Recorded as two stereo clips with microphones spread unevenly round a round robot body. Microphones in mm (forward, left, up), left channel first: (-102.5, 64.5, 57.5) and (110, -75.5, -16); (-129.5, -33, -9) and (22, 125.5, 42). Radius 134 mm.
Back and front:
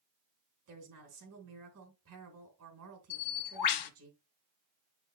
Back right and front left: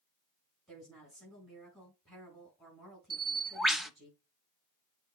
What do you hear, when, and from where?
0.7 s a woman speaking: 45° right, 3.5 m
3.1 s a bird: 135° left, 0.9 m